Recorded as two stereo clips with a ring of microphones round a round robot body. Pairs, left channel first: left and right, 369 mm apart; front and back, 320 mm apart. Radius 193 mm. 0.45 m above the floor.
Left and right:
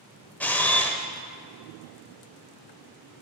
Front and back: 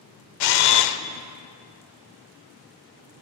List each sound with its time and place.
0.4 s a camera shutter: 5° left, 0.6 m